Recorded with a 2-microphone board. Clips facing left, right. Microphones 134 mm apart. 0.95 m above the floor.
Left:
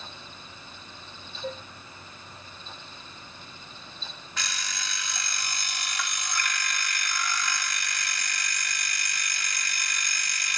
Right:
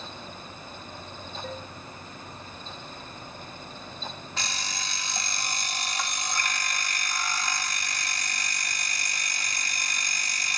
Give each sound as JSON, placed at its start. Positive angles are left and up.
{"t": 1.4, "sound": "dishes clattering", "side_deg": 40, "distance_m": 9.0}
{"t": 4.4, "sound": "an alarm clock", "side_deg": -30, "distance_m": 1.3}